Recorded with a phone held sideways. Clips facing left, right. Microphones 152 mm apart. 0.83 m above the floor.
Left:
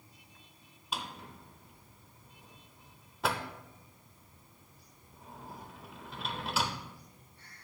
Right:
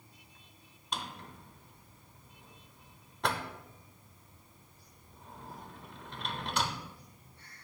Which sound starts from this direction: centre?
A drawer, at 0.9 s.